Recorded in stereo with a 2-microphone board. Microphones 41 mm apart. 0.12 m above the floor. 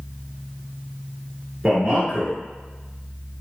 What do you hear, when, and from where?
1.6 s a man speaking: 10° right (ahead or behind), 1.2 m